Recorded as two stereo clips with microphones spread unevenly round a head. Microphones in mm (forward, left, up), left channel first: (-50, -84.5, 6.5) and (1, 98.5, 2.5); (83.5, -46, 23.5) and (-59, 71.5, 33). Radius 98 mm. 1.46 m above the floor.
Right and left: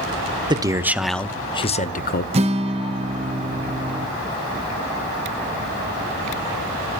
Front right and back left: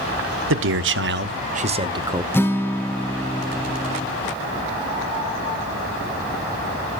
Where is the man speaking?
140° left, 0.9 m; by 2.2 s 140° right, 0.9 m.